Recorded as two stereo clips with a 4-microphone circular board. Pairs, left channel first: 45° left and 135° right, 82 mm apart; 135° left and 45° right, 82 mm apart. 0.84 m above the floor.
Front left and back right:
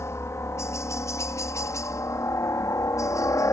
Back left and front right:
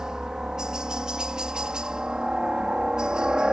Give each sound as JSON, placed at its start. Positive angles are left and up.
{"t": 0.0, "sound": "a helicopter", "azimuth_deg": 30}